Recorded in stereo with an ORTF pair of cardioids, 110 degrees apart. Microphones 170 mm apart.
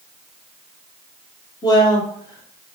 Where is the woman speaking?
25° left, 2.5 m.